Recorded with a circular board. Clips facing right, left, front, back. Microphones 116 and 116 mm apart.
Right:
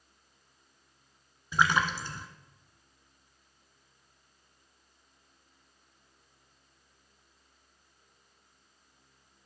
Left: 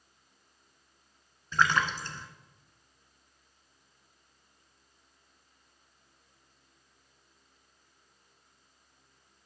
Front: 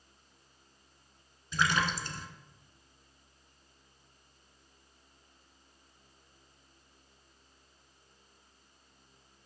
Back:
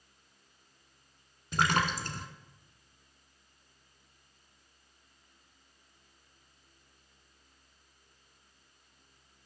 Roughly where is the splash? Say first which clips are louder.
Even, back 2 dB; behind.